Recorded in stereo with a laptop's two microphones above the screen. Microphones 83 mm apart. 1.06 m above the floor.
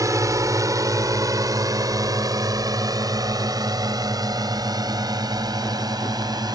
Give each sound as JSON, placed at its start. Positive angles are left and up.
{"t": 0.0, "sound": "a drone", "side_deg": -40}